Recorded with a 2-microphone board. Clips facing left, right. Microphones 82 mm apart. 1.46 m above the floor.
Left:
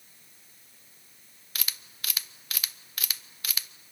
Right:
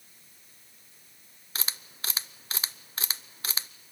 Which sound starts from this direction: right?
A camera shutter, at 1.6 s.